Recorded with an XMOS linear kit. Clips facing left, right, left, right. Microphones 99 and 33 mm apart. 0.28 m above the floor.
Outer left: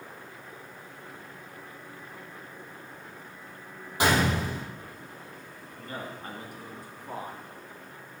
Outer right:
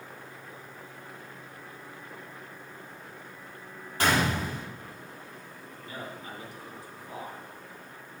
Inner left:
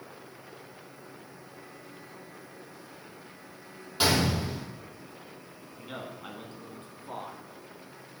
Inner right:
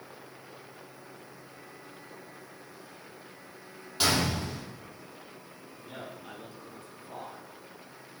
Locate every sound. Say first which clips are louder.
4.0 s a gunshot: outer left 1 dB, inner left 2 dB; 15° left (ahead or behind), 4.5 m
5.8 s a man speaking: outer left 2 dB, inner left 3 dB; 55° left (ahead or behind), 2.5 m